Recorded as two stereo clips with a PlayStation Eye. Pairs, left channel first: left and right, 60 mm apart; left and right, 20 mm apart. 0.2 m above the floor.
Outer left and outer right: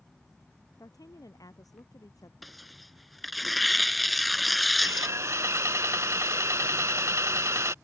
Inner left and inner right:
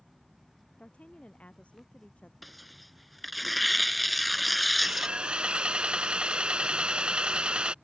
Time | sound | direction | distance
0.8 | a woman speaking | 85° left | ?
2.4 | tearing paper | centre (ahead or behind) | ?
4.8 | sawing | 55° right (ahead or behind) | ?